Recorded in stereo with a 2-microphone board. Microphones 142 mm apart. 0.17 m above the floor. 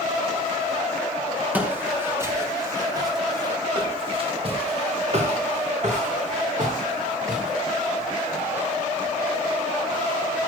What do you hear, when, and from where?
1.5 s footsteps: 10° right (ahead or behind), 3 m; by 8.5 s 70° right (ahead or behind), 4.5 m